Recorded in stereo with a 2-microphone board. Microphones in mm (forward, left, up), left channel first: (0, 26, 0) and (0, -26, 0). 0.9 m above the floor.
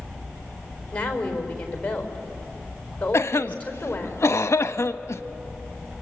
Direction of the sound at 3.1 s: 65° left (ahead or behind).